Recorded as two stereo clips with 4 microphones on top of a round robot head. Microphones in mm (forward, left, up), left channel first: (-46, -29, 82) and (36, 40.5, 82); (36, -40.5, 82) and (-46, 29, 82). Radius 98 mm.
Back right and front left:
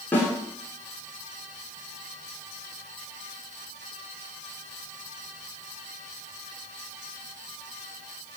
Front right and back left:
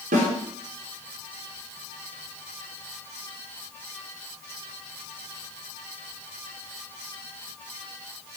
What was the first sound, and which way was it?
A snare drum, 145° left.